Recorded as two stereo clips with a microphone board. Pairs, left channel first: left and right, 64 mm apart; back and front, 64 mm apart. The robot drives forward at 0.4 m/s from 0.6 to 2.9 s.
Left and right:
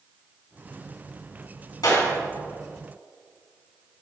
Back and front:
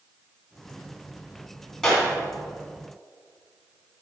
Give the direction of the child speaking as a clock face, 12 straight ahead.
No child speaking in this recording.